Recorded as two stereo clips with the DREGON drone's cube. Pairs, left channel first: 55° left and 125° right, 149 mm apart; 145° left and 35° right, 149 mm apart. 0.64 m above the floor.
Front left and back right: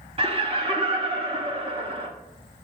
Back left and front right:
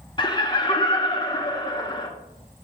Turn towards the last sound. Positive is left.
turn(degrees=-165)